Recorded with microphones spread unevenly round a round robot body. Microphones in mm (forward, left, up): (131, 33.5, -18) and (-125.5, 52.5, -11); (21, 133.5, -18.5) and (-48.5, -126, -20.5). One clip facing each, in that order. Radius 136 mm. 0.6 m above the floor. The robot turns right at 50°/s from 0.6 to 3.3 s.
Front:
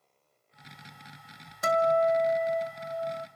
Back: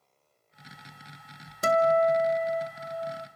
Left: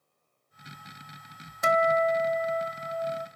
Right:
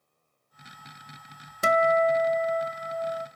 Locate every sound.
1.6 s a guitar: 140° right, 1.1 m; by 3.3 s 55° right, 1.1 m